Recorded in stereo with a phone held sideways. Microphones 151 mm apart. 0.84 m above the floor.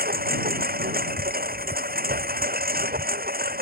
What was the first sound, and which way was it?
A lawn mower, 80° right.